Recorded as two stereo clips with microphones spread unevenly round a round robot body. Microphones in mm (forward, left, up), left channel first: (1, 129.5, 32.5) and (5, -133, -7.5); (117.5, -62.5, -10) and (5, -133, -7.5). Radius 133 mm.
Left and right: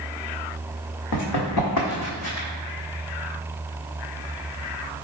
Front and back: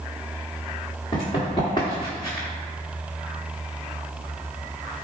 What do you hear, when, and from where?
1.1 s running footsteps: 90° left, 1.8 m; by 2.5 s 110° left, 1.3 m